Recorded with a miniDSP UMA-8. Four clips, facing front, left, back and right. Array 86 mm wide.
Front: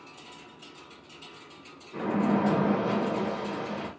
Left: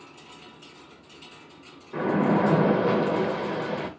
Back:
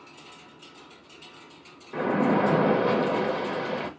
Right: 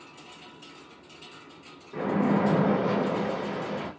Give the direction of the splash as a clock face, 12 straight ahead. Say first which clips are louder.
Left 2 dB, back 3 dB; 7 o'clock.